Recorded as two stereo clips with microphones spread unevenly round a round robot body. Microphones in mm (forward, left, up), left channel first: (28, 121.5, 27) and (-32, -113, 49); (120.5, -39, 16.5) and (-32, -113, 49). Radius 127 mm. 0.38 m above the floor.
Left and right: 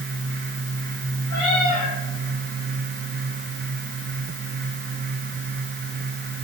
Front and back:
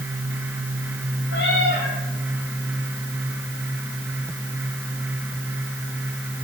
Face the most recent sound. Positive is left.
turn(degrees=60)